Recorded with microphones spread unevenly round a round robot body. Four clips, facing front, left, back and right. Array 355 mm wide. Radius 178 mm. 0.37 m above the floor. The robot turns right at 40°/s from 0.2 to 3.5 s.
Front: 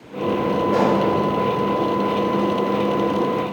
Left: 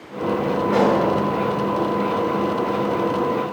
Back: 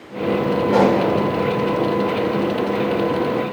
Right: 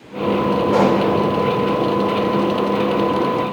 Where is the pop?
165° right, 2.5 m; by 1.0 s 155° right, 2.5 m.